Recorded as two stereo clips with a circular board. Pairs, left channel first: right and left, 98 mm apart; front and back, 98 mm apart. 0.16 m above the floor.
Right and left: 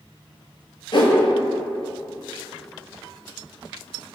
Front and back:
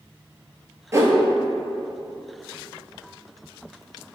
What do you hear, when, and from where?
0.9 s a whoosh: 120° right, 0.6 m